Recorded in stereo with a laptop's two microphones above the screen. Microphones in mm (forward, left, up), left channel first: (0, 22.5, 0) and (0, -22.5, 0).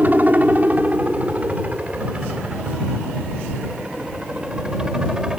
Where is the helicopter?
35° right (ahead or behind); by 5.4 s 15° right (ahead or behind).